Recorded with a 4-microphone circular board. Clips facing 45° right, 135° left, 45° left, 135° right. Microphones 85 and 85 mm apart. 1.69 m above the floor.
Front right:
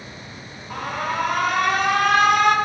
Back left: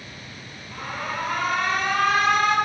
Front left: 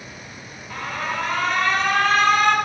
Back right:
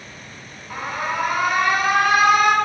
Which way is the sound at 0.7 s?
55° right.